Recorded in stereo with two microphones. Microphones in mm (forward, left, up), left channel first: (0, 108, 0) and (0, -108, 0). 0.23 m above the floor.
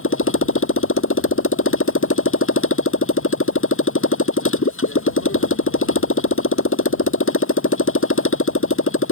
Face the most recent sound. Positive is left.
turn(degrees=75)  # may be behind; listen again after turning